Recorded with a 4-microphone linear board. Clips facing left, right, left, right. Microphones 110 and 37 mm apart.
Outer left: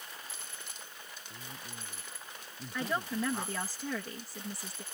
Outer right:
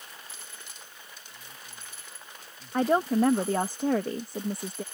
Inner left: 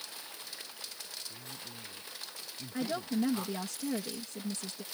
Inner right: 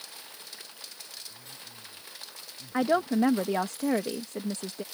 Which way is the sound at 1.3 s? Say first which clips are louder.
Outer left 4 dB, inner left 1 dB; 35° left (ahead or behind).